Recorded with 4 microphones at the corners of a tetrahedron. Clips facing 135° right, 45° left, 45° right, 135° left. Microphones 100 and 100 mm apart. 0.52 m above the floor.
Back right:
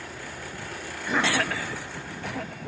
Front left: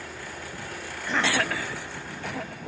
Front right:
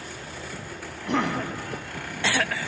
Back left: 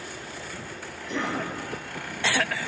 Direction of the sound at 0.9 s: 50° right.